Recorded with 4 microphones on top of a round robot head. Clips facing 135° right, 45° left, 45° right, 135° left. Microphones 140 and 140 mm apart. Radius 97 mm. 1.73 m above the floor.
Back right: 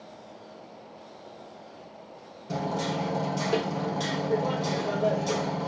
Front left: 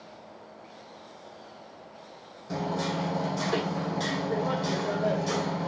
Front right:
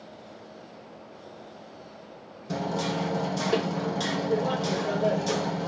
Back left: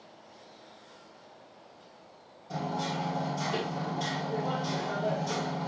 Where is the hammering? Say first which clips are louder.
Back right 1 dB, front right 4 dB; 65° right, 2 m.